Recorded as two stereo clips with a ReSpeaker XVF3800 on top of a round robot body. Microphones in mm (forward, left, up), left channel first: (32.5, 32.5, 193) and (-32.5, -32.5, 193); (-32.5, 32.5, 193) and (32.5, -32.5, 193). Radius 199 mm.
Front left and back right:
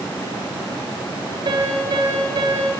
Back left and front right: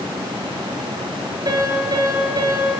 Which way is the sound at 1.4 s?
95° right.